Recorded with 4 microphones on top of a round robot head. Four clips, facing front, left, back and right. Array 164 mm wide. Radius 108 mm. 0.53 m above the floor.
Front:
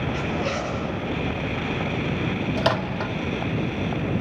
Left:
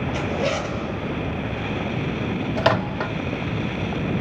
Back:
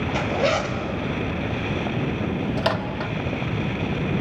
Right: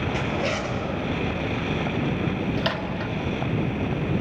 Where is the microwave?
80° left, 1.5 m.